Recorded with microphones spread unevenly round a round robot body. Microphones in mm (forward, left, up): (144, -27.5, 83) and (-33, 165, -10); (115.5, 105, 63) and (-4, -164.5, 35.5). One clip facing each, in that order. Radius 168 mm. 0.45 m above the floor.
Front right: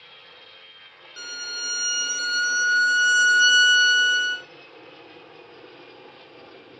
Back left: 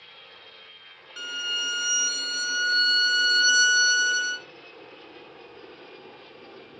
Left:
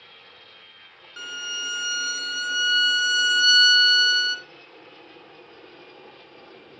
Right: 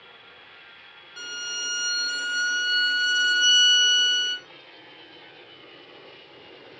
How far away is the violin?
About 1.0 m.